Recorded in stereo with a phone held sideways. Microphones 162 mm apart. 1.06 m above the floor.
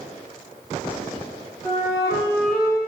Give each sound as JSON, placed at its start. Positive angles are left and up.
{"t": 1.6, "sound": "a flute", "side_deg": -15, "distance_m": 1.7}